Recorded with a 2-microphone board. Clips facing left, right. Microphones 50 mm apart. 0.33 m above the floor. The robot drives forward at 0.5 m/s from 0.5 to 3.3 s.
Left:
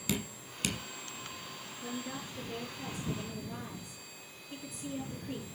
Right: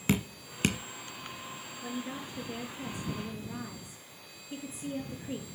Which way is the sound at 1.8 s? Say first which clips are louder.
Right 2 dB; 10° right (ahead or behind).